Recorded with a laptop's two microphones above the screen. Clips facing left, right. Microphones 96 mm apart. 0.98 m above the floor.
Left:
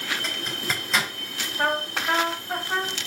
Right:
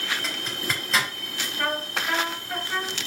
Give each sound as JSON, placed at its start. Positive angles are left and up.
{"t": 0.2, "sound": "a zipper", "side_deg": 0, "distance_m": 3.5}
{"t": 1.6, "sound": "a trumpet", "side_deg": 35, "distance_m": 1.9}